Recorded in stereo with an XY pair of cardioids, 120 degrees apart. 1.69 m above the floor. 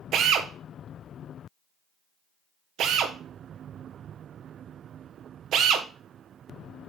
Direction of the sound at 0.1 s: 65° right.